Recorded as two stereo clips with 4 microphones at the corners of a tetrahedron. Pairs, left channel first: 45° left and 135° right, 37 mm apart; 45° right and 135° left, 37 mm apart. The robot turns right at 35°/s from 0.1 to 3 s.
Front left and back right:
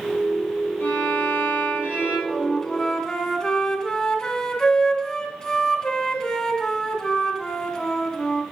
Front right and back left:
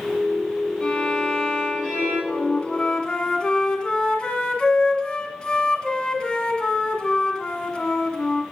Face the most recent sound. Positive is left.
turn(degrees=5)